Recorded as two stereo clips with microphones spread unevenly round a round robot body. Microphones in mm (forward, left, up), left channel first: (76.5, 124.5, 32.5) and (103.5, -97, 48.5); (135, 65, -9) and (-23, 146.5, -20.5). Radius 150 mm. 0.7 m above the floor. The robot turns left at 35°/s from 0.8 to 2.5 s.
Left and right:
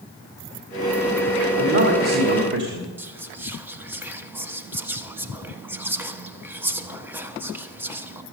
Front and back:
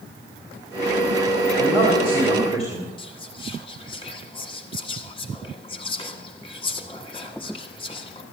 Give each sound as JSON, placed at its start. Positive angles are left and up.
{"t": 1.6, "sound": "a man speaking", "azimuth_deg": -85, "distance_m": 2.0}
{"t": 3.0, "sound": "whispering", "azimuth_deg": -5, "distance_m": 1.2}